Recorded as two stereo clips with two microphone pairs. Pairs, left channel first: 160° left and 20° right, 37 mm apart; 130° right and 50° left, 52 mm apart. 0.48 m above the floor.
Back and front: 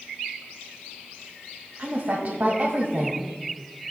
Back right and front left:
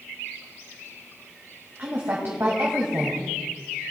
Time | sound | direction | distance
1.8 | a woman speaking | 10° left | 2 m